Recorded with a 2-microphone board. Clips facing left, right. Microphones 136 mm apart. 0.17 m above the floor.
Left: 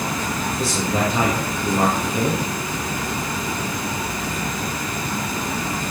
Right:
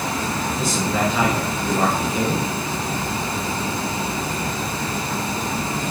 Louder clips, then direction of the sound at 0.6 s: Even; 35° left (ahead or behind).